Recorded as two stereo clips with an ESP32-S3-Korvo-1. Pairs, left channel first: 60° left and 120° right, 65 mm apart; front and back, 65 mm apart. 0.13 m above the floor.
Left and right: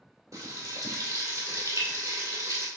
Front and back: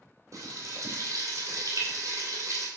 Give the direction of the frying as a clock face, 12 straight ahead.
5 o'clock.